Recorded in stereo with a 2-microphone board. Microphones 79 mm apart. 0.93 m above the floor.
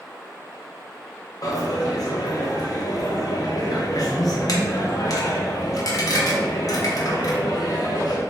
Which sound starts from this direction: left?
A dropped coin, at 1.4 s.